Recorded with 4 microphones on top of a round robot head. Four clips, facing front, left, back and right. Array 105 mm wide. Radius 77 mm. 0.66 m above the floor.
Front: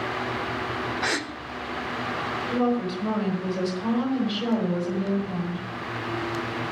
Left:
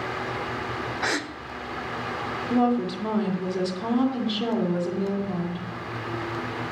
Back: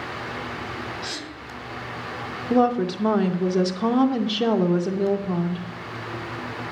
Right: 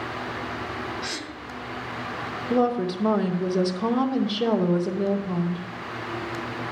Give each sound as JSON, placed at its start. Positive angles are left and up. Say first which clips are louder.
{"t": 1.0, "sound": "a gasp", "louder": "left 6 dB, front 7 dB", "azimuth_deg": 55, "distance_m": 1.2}
{"t": 2.5, "sound": "a woman speaking", "louder": "even, back 6 dB", "azimuth_deg": -160, "distance_m": 2.5}